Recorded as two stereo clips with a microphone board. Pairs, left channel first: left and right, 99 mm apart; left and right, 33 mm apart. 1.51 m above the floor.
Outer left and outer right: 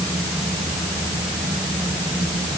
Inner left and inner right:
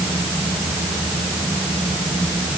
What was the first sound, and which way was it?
Only background noise.